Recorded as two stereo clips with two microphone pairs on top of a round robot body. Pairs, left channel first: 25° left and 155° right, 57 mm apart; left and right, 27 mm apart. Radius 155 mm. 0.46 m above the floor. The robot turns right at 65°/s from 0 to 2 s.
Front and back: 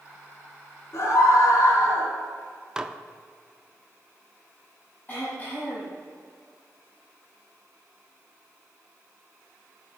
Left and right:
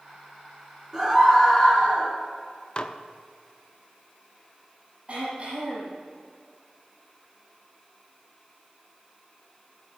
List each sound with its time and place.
0.9 s a scream: 15° right, 5 m; by 2.1 s 55° left, 5 m
2.8 s dishes clattering: 130° left, 0.9 m
5.1 s throat clearing: 35° right, 5.5 m